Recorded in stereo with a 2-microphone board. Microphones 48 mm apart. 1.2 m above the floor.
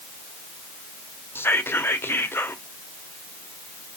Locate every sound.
1.4 s whispering: 55° left (ahead or behind), 0.6 m